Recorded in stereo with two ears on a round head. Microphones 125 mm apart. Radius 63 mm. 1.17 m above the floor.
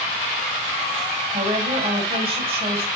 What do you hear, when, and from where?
1.3 s a woman speaking: 40° right (ahead or behind), 6.5 m